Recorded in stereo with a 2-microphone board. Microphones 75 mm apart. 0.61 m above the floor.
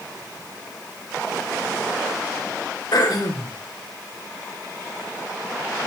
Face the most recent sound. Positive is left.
turn(degrees=60)  # may be behind; listen again after turning